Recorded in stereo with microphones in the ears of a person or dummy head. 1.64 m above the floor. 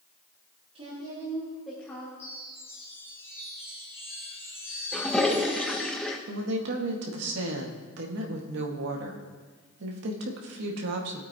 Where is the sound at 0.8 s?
35° right (ahead or behind), 2 m; by 2.1 s 20° left (ahead or behind), 1.9 m.